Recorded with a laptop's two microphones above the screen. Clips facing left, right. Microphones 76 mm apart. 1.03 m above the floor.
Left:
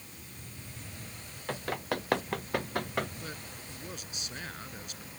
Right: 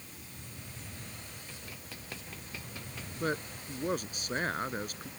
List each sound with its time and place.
1.5 s running footsteps: 75° left (ahead or behind); by 3.1 s 70° left (ahead or behind)
3.2 s a man speaking: 50° right (ahead or behind)